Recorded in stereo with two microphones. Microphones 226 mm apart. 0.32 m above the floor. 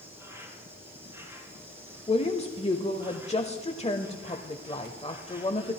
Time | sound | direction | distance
0.0 | an insect | 10° right (ahead or behind) | 4 m
2.1 | a woman speaking | 30° left (ahead or behind) | 1.0 m